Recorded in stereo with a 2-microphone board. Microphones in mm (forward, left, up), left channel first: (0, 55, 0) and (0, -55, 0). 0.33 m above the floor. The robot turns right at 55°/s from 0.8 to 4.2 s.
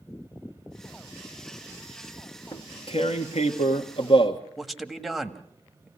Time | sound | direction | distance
2.5 | tearing paper | 40° left | 1.4 m
4.6 | a man speaking | centre (ahead or behind) | 1.6 m